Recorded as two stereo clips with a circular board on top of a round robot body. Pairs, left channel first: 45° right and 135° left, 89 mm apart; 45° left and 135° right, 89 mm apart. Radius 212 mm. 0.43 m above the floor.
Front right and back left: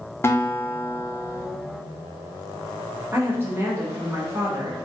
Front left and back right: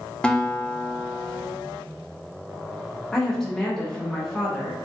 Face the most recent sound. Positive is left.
turn(degrees=120)